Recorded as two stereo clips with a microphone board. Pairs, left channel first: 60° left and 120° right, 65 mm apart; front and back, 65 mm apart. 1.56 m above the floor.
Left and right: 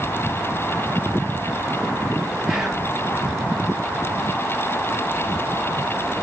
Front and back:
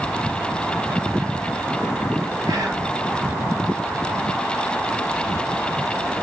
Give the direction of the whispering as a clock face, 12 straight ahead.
7 o'clock.